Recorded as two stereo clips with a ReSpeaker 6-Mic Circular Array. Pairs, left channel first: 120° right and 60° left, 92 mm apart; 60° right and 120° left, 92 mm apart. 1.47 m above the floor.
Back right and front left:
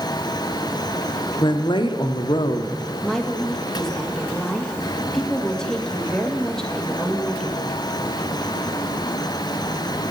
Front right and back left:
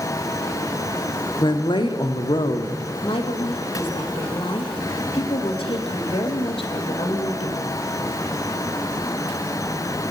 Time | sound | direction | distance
1.4 | a woman speaking | 90° right | 1.1 m
3.0 | a woman speaking | 35° right | 1.7 m